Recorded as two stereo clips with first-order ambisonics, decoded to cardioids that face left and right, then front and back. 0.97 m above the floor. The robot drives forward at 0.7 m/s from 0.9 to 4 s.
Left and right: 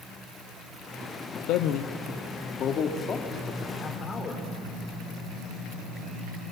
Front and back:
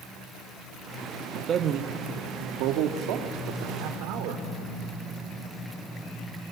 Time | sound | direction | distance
1.5 | a man speaking | 120° left | 0.9 m